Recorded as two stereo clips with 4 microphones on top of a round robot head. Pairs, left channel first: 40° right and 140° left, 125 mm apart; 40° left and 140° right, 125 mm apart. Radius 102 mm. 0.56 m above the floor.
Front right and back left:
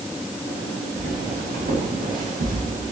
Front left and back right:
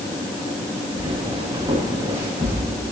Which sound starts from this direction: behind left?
Footsteps, at 1.0 s.